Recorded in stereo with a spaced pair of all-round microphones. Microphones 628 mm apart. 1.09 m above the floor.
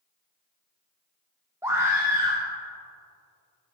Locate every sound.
1.6 s a scream: 5° right (ahead or behind), 0.8 m